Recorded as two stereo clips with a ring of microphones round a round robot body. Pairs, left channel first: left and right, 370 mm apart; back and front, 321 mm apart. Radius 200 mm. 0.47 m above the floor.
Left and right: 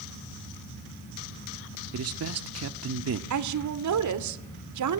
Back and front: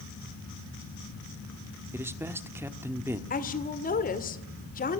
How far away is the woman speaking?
About 1.8 m.